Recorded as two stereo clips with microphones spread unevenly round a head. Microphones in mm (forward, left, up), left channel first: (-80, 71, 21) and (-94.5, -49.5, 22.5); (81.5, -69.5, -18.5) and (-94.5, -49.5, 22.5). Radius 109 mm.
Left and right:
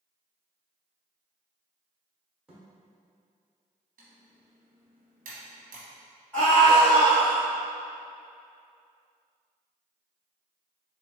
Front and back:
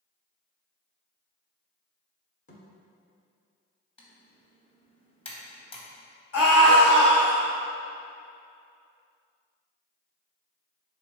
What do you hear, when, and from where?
2.5 s a thud: 20° right, 0.9 m
4.0 s typing on a keyboard: 65° right, 1.0 m
6.3 s a scream: straight ahead, 1.7 m